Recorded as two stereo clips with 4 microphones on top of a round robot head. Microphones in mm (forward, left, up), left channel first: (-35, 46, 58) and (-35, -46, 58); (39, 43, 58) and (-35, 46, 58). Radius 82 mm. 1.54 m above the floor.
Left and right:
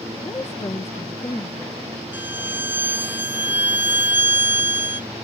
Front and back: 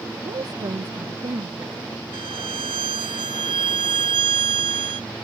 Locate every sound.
0.2 s a woman speaking: 150° left; by 1.8 s 145° left
2.1 s a violin: 155° right